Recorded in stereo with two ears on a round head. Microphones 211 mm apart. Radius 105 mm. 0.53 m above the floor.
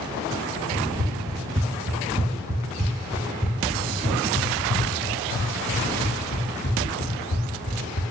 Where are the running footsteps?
40° right (ahead or behind), 3.5 m; by 8.0 s 45° left (ahead or behind), 4.5 m.